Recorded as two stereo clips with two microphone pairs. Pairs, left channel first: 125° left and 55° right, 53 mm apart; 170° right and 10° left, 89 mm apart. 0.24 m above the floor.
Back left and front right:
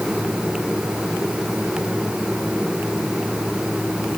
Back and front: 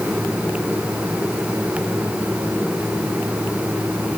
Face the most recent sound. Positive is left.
No sound to turn to.